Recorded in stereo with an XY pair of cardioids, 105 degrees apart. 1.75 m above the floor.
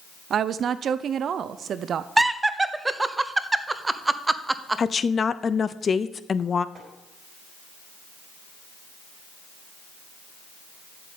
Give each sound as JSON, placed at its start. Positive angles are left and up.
{"t": 0.3, "sound": "a woman speaking", "azimuth_deg": -55, "distance_m": 0.7}
{"t": 2.2, "sound": "laughter", "azimuth_deg": -15, "distance_m": 0.9}
{"t": 4.8, "sound": "a woman speaking", "azimuth_deg": 35, "distance_m": 0.7}
{"t": 6.8, "sound": "tapping", "azimuth_deg": -40, "distance_m": 5.0}